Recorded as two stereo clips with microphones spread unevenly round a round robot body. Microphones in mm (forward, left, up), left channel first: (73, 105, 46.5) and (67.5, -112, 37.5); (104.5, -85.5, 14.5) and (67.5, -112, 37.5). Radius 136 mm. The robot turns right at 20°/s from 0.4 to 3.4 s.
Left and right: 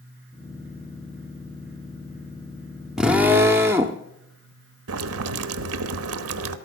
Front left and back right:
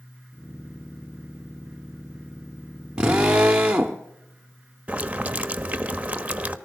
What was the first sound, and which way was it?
A drill, straight behind.